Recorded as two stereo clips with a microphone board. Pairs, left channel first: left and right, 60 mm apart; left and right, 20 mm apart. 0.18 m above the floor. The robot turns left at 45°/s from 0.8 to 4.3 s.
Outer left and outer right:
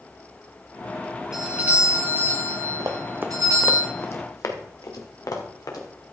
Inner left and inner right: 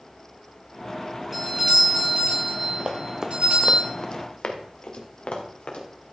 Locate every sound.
1.3 s a doorbell: 5° right, 5.5 m; by 3.8 s 120° right, 5.5 m
2.8 s running footsteps: 70° right (ahead or behind), 1.6 m; by 5.9 s 90° left, 3.5 m